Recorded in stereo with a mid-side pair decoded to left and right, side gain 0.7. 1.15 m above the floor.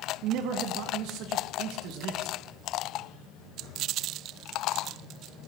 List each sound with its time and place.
0.2 s a man speaking: 65° right, 1.3 m